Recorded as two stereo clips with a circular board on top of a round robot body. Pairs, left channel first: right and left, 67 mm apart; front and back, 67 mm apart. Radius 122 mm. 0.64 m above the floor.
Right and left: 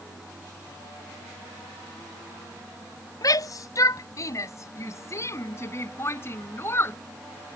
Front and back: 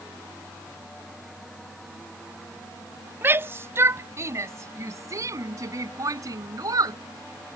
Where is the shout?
120° right; by 7.0 s 145° right.